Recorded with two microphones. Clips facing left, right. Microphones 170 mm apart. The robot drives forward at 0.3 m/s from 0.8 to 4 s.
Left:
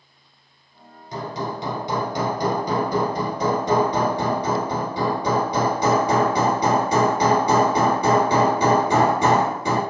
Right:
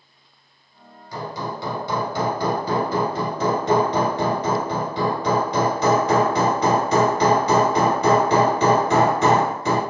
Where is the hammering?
25° left (ahead or behind), 0.8 m; by 9.8 s 15° left (ahead or behind), 1.6 m.